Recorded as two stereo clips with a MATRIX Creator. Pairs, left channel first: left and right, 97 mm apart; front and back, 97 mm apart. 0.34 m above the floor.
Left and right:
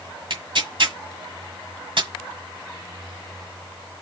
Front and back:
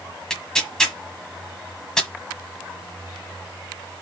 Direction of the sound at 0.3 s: 85° right.